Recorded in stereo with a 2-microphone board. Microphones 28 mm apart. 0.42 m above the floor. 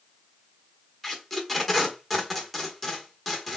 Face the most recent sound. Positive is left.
turn(degrees=0)  # may be behind; listen again after turning